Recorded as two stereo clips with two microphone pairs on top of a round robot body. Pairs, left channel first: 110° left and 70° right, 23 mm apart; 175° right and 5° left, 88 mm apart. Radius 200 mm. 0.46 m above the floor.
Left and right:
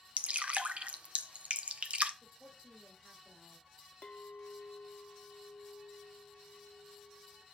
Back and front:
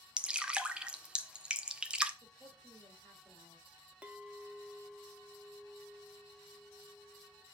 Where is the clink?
85° left, 1.1 m.